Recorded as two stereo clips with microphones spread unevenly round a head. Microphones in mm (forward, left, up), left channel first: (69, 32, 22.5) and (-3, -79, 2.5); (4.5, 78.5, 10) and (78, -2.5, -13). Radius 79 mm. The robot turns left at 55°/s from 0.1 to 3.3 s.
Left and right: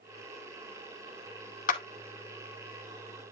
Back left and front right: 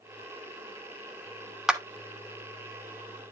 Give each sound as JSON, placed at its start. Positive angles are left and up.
{"t": 1.7, "sound": "a clap", "azimuth_deg": 40, "distance_m": 2.5}